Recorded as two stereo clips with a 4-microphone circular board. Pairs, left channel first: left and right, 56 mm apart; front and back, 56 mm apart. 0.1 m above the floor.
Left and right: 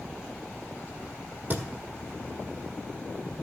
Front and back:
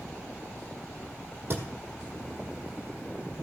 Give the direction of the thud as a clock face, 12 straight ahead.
5 o'clock.